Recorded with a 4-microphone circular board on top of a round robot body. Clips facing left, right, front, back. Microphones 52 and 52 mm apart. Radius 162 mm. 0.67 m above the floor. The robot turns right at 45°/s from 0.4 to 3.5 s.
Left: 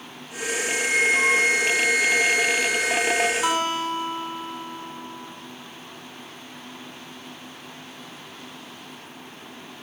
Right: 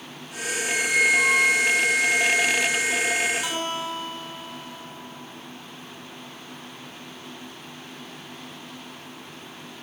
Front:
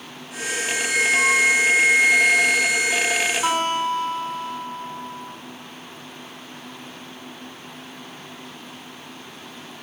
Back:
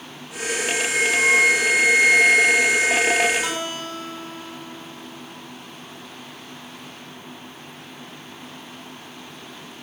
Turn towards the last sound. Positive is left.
turn(degrees=55)